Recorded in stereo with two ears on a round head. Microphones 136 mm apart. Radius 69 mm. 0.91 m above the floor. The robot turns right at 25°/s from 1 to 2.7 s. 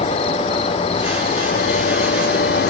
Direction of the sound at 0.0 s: 40° left.